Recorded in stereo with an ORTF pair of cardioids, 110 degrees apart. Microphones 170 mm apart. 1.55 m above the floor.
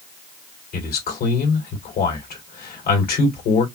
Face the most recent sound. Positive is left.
turn(degrees=65)